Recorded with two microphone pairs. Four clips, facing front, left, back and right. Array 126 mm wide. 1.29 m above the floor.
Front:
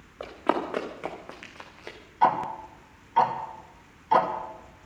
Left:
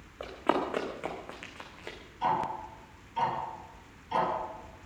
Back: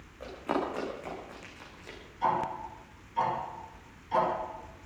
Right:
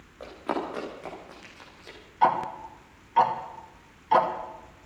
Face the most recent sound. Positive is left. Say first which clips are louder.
# right 6 dB, front 6 dB
turn(degrees=-45)